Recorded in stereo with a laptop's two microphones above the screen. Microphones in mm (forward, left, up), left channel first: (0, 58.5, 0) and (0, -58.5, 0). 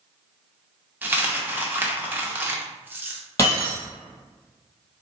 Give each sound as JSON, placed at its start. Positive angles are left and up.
{"t": 1.0, "sound": "a dropped coin", "side_deg": -15, "distance_m": 0.6}
{"t": 3.4, "sound": "breaking glass", "side_deg": 30, "distance_m": 1.8}